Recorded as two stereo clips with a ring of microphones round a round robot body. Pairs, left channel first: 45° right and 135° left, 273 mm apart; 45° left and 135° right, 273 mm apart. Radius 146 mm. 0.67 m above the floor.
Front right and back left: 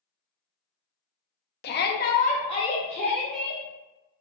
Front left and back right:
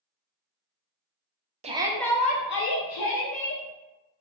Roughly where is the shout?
Right.